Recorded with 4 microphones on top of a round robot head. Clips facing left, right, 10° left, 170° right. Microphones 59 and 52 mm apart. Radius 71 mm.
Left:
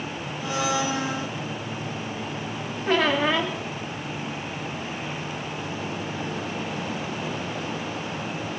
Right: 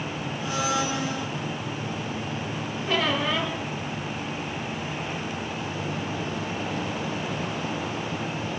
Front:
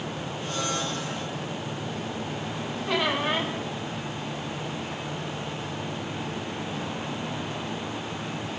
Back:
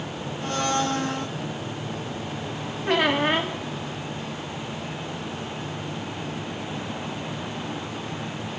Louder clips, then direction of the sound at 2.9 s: Left 4 dB, back 5 dB; 150° left.